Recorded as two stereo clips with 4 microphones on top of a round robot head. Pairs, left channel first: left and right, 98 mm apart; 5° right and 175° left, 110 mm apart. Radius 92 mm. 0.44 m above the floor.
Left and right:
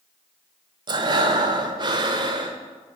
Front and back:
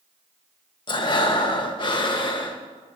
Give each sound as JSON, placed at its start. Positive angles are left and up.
{"t": 0.9, "sound": "breathing", "azimuth_deg": -50, "distance_m": 1.0}